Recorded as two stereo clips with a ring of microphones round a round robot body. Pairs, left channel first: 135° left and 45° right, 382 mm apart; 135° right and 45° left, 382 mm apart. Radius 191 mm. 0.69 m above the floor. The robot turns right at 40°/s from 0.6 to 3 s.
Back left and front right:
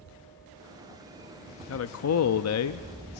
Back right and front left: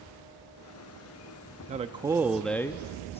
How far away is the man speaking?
About 0.5 m.